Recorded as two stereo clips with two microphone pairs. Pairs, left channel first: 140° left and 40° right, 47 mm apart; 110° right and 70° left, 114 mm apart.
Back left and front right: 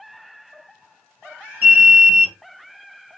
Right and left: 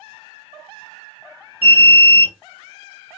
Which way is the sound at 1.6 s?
80° right.